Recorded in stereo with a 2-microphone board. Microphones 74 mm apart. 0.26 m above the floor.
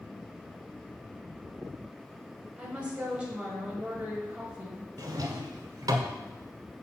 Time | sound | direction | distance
2.6 | a woman speaking | 15° right (ahead or behind) | 1.0 m
5.0 | a drawer | 60° right (ahead or behind) | 0.5 m